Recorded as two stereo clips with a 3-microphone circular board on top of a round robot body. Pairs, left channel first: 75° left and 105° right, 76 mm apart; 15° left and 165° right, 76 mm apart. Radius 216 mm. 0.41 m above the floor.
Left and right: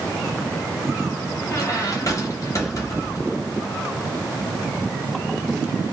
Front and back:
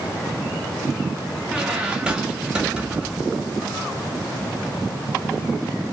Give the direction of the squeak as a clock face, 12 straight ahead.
8 o'clock.